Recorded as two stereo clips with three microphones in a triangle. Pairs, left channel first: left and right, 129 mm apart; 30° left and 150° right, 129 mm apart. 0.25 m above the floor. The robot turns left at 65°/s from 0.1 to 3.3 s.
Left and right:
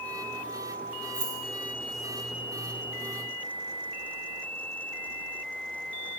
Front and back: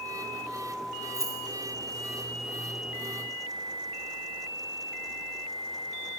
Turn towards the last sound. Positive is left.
turn(degrees=80)